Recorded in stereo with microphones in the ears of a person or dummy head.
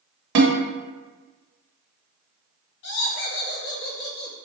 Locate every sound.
0.3 s a snare drum: 60° right (ahead or behind), 0.9 m
2.8 s laughter: 60° left (ahead or behind), 1.2 m